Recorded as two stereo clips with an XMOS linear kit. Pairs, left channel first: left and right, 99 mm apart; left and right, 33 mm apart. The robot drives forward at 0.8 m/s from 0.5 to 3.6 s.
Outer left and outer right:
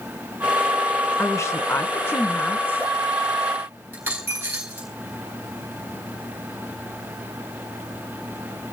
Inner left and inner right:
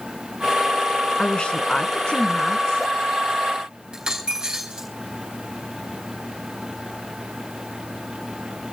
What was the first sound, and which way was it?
A woman speaking, 30° left (ahead or behind).